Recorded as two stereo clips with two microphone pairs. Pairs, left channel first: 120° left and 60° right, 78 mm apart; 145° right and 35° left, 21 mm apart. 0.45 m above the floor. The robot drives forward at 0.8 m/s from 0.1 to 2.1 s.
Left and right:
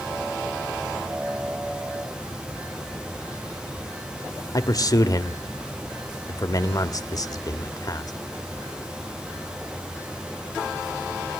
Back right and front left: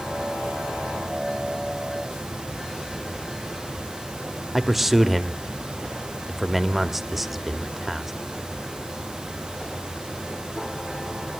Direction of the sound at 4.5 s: 120° left.